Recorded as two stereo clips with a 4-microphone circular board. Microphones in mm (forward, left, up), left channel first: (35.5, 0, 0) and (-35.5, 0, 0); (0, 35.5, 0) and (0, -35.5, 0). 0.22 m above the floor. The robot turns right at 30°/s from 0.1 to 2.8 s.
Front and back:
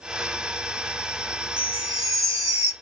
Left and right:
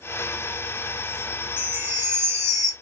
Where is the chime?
170° right, 1.1 m; by 2.7 s 135° right, 1.1 m.